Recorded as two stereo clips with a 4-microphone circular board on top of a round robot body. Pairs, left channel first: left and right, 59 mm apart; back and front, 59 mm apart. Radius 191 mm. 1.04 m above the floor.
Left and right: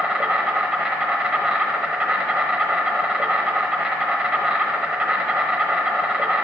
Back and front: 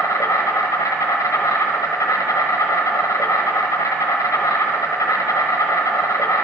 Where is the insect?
160° right, 1.0 m.